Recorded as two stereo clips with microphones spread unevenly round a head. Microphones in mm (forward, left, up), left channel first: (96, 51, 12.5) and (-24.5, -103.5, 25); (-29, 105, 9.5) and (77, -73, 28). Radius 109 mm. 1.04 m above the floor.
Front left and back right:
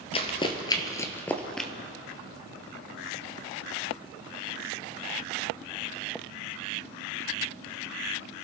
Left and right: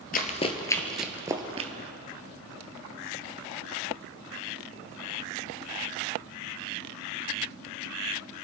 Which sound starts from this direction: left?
Running footsteps, at 0.1 s.